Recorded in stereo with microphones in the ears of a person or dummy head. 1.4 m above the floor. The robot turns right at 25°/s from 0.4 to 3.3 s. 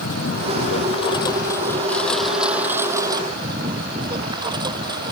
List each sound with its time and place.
0.0 s a lawn mower: 135° left; by 5.1 s 155° right